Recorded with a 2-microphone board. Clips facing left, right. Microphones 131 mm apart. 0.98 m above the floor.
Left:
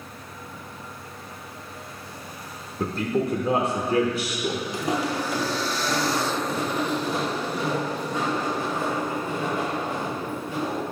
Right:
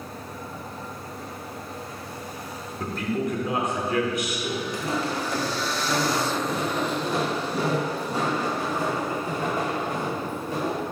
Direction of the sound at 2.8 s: 30° left (ahead or behind).